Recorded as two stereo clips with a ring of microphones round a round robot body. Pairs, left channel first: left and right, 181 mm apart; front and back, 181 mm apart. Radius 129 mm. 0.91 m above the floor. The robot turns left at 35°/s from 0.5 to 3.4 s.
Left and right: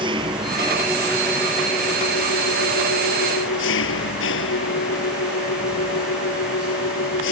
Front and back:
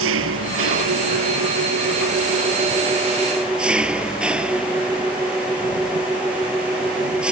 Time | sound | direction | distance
0.0 | an engine running | 165° right | ?